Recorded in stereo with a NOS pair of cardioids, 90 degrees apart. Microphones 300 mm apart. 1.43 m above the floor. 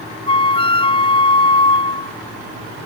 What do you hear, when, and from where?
0.3 s a flute: 15° left